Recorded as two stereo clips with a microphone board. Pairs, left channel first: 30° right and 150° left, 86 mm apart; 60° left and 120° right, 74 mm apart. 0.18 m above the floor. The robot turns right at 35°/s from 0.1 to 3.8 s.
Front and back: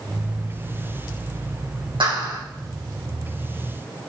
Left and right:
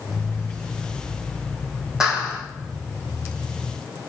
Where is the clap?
160° left, 6 m; by 2.4 s 170° left, 6 m.